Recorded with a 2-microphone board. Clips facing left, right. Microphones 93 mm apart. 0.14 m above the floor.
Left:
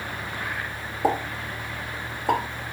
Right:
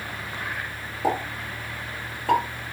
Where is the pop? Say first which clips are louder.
Left 1 dB; 15° left (ahead or behind), 3.5 m.